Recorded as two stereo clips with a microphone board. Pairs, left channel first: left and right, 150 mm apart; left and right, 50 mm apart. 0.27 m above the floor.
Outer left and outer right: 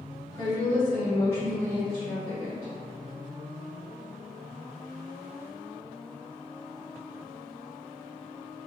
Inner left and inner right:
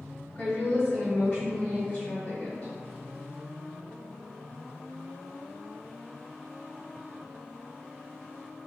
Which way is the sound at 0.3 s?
20° left (ahead or behind).